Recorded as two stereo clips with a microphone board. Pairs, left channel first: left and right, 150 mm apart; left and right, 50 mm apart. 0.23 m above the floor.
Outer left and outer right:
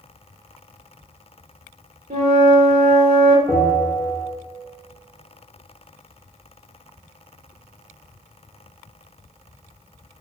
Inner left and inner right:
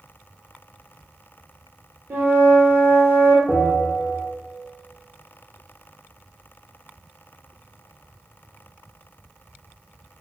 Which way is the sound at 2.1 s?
55° right (ahead or behind).